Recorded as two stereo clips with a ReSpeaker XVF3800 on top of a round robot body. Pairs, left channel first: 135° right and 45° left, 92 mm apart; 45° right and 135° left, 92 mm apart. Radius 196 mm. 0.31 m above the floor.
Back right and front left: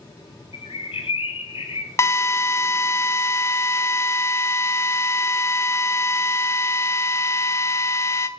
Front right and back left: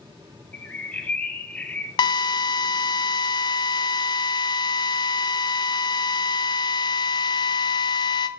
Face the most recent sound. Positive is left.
turn(degrees=-75)